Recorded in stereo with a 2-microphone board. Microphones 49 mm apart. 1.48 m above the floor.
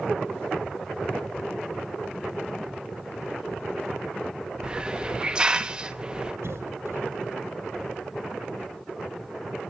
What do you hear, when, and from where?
4.6 s a hiss: 20° right (ahead or behind), 0.9 m
6.4 s a cough: 75° right (ahead or behind), 4 m